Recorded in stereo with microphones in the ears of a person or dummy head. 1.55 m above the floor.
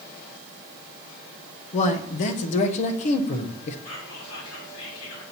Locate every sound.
1.7 s a man speaking: 40° left (ahead or behind), 0.6 m
3.9 s whispering: 80° left, 2 m